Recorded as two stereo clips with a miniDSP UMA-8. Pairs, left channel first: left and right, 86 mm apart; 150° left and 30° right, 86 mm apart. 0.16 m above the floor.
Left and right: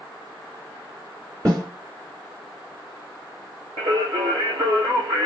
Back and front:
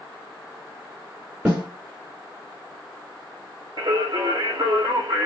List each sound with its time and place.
1.4 s a snare drum: 90° right, 2 m
3.8 s singing: 65° right, 1.1 m